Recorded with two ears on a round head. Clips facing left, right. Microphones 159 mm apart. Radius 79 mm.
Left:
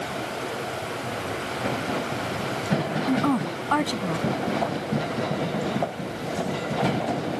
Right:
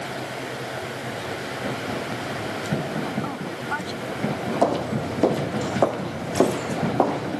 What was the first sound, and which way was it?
A woman speaking, 65° left (ahead or behind).